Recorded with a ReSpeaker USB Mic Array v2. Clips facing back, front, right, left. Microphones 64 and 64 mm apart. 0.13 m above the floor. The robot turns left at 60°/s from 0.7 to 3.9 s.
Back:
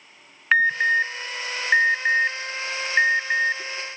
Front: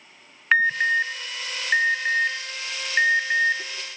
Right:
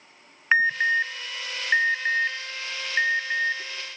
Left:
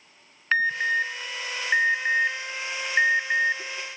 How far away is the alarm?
About 0.8 m.